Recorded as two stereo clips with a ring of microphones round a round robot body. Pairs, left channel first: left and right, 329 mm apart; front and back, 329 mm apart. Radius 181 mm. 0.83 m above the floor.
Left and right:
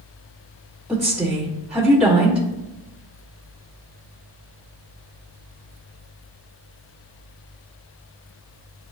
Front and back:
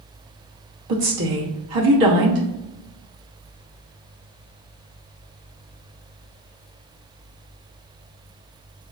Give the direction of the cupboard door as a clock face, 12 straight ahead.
No cupboard door in this recording.